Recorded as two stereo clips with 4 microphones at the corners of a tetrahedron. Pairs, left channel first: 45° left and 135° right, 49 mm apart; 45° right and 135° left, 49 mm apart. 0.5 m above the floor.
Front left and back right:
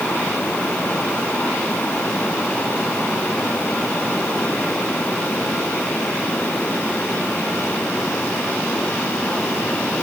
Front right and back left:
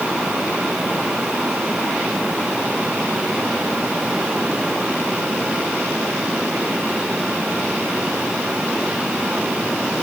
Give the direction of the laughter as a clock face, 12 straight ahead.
No laughter in this recording.